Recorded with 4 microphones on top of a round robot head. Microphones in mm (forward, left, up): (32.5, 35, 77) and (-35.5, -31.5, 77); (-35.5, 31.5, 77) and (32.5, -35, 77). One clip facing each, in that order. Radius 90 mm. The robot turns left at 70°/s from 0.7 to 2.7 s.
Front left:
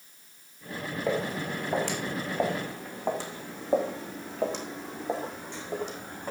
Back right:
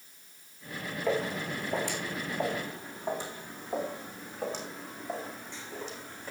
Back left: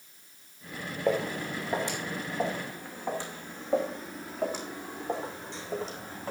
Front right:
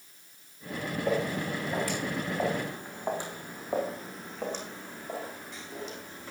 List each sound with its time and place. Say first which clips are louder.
1.1 s footsteps: even, back left 1 dB; 120° left, 4.5 m; by 6.3 s 85° left, 3 m